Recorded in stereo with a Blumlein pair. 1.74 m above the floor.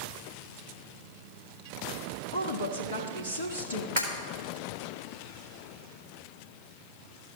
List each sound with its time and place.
2.3 s a woman speaking: 70° left, 1.1 m
4.0 s breaking glass: 65° right, 3 m